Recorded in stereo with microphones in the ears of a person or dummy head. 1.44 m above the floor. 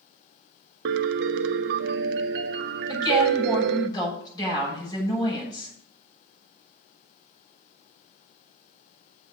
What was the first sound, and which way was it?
A piano, 65° right (ahead or behind).